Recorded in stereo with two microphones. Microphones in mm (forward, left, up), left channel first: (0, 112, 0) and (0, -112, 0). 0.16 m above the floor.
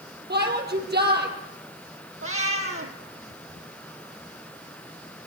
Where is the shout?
45° right (ahead or behind), 4.5 m.